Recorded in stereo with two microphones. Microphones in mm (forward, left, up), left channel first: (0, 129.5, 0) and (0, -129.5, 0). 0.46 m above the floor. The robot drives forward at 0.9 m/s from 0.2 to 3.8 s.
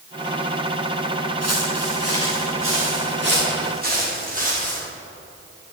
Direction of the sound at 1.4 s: 75° right (ahead or behind).